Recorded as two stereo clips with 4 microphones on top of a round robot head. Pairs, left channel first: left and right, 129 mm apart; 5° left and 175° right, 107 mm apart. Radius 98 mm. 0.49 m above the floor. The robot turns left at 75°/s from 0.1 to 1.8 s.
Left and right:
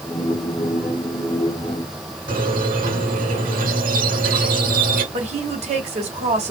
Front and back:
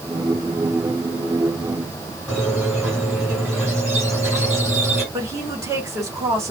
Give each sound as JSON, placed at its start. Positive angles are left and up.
{"t": 2.3, "sound": "a squeak", "azimuth_deg": -90, "distance_m": 4.0}
{"t": 5.1, "sound": "a woman speaking", "azimuth_deg": -115, "distance_m": 2.5}